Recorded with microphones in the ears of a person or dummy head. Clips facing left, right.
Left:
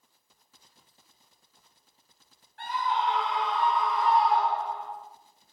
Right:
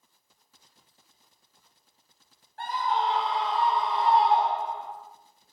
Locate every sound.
2.6 s a scream: 40° right (ahead or behind), 7 m; by 4.9 s 20° right (ahead or behind), 5.5 m